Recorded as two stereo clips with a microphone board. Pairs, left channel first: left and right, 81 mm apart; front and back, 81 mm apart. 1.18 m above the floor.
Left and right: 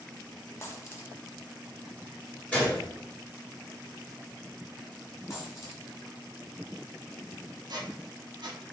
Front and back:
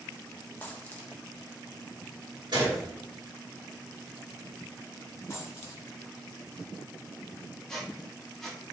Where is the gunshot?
160° left, 1.8 m.